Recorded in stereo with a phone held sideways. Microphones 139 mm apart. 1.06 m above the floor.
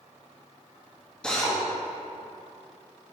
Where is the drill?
5° left (ahead or behind), 1.3 m.